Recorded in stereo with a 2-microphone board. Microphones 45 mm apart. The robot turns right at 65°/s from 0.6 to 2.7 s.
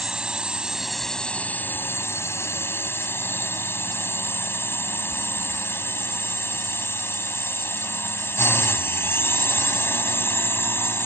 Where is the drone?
20° right; by 11.1 s 115° left.